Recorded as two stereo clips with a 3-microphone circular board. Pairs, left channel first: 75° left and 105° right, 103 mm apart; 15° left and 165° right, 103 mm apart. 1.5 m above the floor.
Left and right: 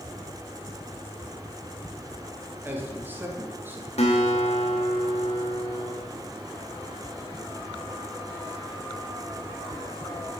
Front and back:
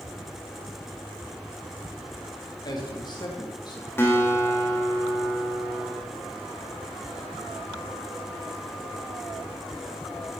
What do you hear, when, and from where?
2.6 s a man speaking: 35° right, 1.9 m
4.0 s a guitar: 80° left, 2.0 m